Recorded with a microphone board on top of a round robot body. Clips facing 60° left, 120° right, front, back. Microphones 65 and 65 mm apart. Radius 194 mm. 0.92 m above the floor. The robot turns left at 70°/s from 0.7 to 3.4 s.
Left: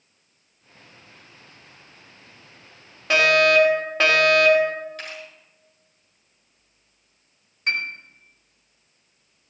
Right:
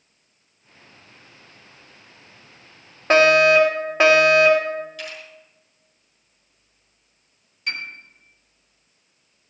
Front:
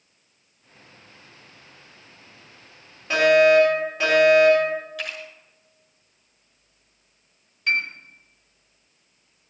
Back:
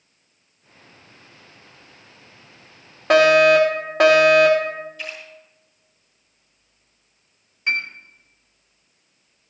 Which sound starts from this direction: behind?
A fire alarm, at 3.1 s.